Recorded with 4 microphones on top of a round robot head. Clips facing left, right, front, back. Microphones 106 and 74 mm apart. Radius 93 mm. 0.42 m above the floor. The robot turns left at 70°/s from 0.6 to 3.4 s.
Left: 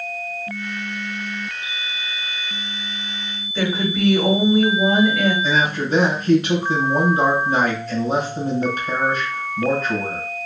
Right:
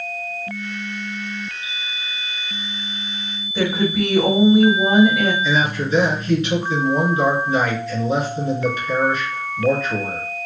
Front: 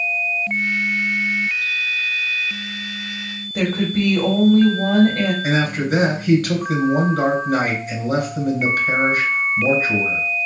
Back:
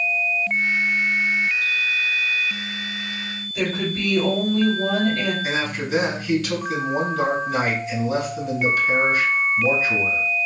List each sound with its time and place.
3.5 s a woman speaking: 10° right, 1.4 m
5.4 s a man speaking: 40° left, 2.5 m